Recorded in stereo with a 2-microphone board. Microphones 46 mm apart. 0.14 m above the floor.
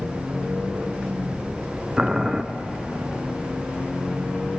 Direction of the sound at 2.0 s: 15° right (ahead or behind).